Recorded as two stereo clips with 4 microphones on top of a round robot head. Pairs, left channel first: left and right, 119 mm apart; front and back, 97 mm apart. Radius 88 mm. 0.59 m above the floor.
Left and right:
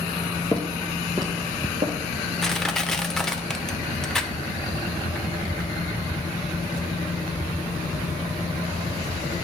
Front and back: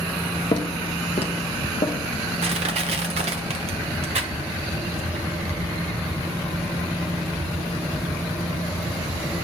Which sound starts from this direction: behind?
Crushing, at 2.4 s.